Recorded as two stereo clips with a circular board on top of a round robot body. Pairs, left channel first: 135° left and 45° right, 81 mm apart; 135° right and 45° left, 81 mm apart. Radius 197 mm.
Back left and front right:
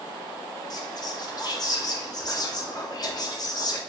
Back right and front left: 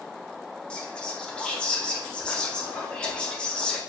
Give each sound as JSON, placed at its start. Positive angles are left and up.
{"t": 0.7, "sound": "whispering", "azimuth_deg": 150, "distance_m": 1.0}